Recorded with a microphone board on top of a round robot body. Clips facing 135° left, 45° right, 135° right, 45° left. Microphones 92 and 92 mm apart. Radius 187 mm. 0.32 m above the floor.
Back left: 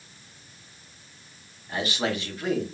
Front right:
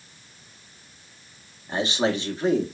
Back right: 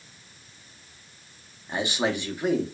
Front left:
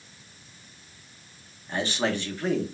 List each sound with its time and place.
1.7 s a man speaking: 70° right, 0.9 m